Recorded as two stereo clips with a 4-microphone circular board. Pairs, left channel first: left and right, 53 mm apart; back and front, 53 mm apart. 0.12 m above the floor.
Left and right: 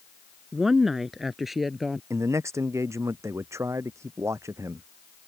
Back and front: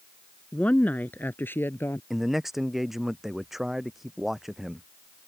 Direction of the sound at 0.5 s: 165° right.